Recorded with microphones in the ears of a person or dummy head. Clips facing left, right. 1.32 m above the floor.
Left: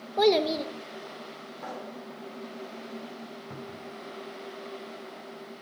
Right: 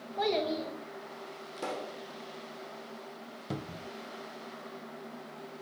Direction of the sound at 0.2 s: 65° left (ahead or behind).